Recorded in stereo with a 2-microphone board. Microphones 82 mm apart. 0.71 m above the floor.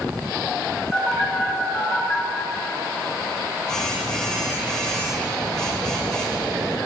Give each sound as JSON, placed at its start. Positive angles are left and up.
{"t": 0.9, "sound": "a phone buzzing", "side_deg": 10, "distance_m": 2.5}